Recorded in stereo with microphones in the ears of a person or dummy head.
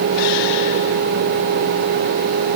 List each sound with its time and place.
Only background noise.